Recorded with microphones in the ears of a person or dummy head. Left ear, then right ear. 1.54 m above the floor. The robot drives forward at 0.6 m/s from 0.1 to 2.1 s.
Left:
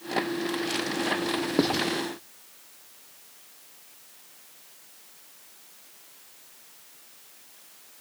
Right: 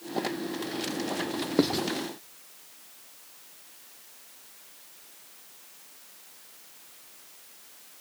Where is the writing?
5° right (ahead or behind), 1.3 m.